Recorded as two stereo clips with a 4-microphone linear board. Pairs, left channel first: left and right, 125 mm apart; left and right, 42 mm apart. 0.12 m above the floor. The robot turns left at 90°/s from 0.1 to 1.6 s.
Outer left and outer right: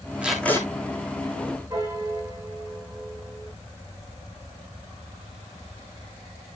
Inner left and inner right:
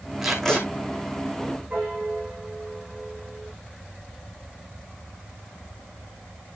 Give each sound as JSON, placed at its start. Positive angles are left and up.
{"t": 0.2, "sound": "tape being pulled", "azimuth_deg": -170, "distance_m": 3.5}
{"t": 1.7, "sound": "a piano", "side_deg": -25, "distance_m": 5.0}